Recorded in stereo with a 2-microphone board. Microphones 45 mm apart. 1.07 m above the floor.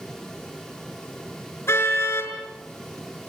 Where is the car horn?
85° left, 5.5 m.